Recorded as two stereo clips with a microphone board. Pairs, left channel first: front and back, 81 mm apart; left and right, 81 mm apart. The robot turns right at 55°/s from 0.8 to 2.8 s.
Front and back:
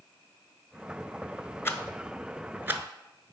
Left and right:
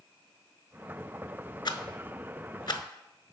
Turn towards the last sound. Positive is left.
turn(degrees=120)